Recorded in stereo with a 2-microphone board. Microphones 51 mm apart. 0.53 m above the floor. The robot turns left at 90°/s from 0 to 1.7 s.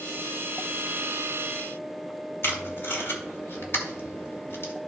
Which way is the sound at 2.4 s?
50° left (ahead or behind).